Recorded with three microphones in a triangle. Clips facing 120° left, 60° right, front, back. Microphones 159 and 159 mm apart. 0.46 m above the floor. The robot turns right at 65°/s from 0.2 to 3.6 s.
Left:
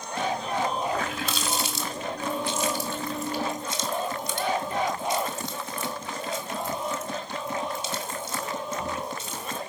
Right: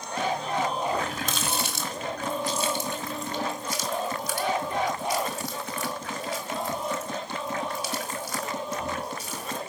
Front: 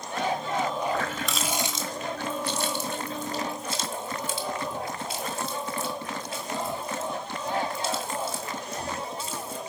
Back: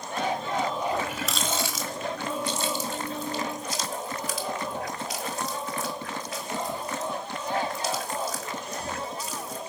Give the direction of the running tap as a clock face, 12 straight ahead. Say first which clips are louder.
Even, even; 4 o'clock.